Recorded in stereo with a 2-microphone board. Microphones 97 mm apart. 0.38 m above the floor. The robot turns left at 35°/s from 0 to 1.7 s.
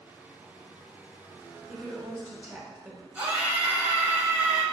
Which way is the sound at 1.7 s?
20° right (ahead or behind).